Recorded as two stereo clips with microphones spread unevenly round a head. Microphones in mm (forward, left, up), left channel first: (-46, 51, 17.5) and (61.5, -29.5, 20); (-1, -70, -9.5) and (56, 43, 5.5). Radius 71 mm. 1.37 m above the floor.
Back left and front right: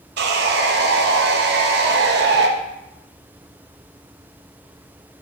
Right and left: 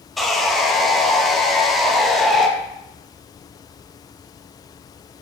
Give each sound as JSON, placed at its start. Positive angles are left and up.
{"t": 0.2, "sound": "sawing", "azimuth_deg": -30, "distance_m": 0.5}